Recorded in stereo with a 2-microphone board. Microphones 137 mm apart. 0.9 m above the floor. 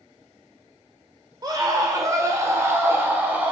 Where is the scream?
30° right (ahead or behind), 3.5 m; by 3.5 s 10° right (ahead or behind), 3 m.